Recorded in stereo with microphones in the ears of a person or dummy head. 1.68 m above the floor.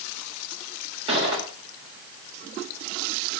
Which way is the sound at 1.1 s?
30° right (ahead or behind).